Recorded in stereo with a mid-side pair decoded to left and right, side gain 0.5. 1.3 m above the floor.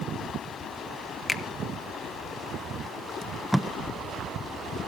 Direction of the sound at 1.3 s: 20° left.